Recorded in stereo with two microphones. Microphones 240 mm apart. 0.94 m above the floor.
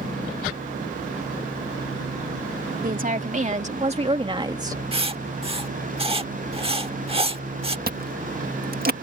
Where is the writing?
25° right (ahead or behind).